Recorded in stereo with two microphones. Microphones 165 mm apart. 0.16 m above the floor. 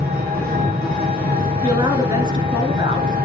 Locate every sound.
0.0 s an engine running: 65° right (ahead or behind), 2.5 m
1.6 s a woman speaking: 25° right (ahead or behind), 1.7 m